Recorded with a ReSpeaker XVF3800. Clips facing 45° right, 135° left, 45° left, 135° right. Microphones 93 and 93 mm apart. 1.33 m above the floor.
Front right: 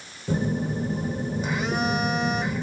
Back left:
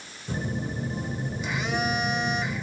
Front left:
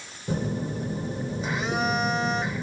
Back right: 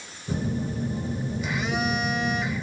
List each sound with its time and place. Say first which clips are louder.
0.3 s a phone buzzing: front right 6 dB, even; 5° right, 1.0 m